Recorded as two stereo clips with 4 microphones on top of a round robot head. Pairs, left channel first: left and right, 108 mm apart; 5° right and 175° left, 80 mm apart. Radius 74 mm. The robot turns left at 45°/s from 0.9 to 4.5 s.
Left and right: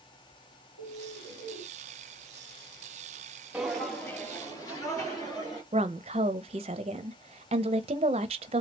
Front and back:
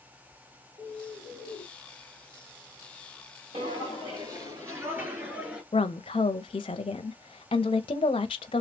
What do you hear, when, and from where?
0.8 s a bird: 30° right, 2 m; by 1.7 s 60° right, 2 m
3.5 s footsteps: 165° right, 2.5 m; by 5.6 s 105° left, 1.9 m
5.7 s a woman speaking: 45° right, 0.5 m